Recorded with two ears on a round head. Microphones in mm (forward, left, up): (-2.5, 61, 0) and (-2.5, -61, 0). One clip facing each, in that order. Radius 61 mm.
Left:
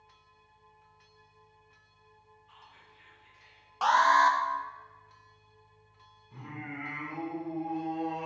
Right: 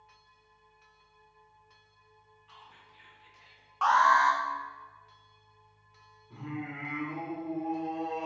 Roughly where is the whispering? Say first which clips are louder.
Right 4 dB; right.